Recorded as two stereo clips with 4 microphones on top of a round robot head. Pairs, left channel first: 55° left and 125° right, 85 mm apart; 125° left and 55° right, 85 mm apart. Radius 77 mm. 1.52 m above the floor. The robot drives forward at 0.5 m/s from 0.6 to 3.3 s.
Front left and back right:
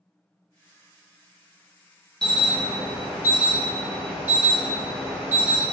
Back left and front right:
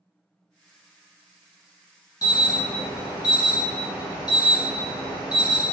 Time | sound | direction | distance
2.2 | an alarm | 135° left | 0.6 m